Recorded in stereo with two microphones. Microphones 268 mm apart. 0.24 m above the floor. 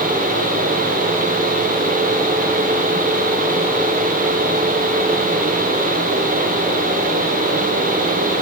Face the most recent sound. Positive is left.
No sound to turn to.